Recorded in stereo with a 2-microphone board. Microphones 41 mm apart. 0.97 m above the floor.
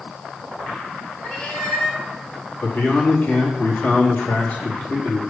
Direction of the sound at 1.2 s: 30° left (ahead or behind).